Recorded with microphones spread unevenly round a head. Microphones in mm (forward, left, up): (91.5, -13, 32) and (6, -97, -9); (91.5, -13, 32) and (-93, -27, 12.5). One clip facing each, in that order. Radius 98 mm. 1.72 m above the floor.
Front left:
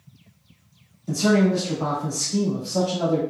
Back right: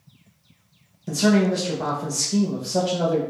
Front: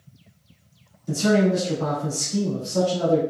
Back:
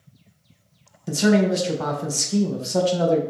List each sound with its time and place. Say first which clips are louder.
1.1 s a man speaking: even, back 1 dB; 175° left, 0.6 m